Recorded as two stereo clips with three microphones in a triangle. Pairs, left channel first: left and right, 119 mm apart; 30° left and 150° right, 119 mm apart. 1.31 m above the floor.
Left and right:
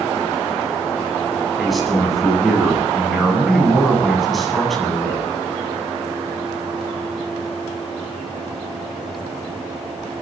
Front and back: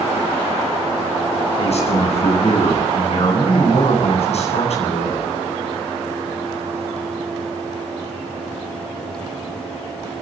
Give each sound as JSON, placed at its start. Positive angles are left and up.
{"t": 1.6, "sound": "a man speaking", "azimuth_deg": 0, "distance_m": 8.5}